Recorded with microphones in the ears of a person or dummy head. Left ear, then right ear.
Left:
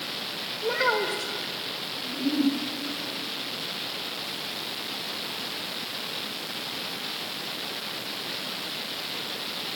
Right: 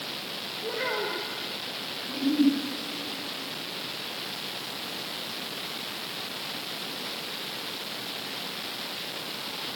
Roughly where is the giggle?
Right.